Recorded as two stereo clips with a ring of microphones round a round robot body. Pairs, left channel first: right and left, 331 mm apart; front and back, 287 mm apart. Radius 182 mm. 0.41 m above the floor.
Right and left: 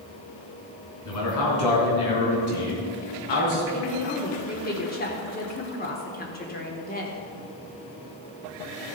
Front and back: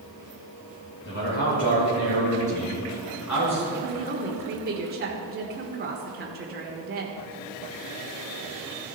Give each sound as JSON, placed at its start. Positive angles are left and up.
{"t": 1.1, "sound": "a man speaking", "azimuth_deg": -60, "distance_m": 4.5}
{"t": 3.7, "sound": "a woman speaking", "azimuth_deg": -140, "distance_m": 1.4}